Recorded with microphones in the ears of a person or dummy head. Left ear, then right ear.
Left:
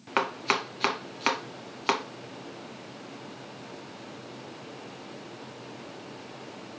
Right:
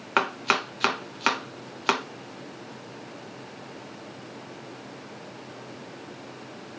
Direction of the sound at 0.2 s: 5° right (ahead or behind).